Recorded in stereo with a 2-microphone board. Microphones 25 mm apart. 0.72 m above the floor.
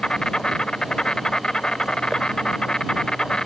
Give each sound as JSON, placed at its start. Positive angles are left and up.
{"t": 0.0, "sound": "an insect", "side_deg": 35}